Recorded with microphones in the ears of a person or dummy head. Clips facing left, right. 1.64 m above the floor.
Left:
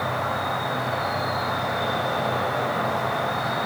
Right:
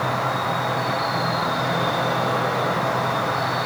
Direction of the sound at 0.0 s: 80° right.